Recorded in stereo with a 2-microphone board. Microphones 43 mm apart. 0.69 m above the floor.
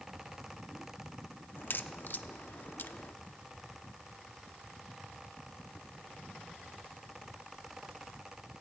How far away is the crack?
About 0.8 m.